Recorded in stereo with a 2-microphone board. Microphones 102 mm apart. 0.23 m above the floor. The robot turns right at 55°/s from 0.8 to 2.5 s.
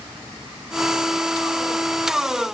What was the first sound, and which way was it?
Only background noise.